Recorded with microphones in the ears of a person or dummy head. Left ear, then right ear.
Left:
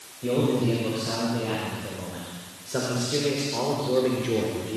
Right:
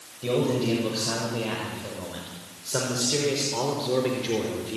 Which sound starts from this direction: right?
A man speaking, at 0.2 s.